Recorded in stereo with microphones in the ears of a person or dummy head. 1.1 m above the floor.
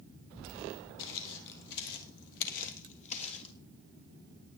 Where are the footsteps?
60° left (ahead or behind), 2 m; by 3.5 s 30° left (ahead or behind), 1.7 m.